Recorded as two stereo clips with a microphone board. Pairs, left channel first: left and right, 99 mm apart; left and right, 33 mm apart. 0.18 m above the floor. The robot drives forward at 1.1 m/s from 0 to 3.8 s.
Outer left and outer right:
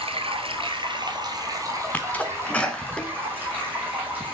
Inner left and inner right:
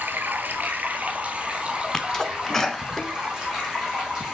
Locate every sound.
0.0 s running water: 75° right (ahead or behind), 1.4 m; by 4.3 s 20° right (ahead or behind), 4.5 m
1.9 s a sneeze: 15° left (ahead or behind), 1.3 m; by 4.2 s 5° left (ahead or behind), 3 m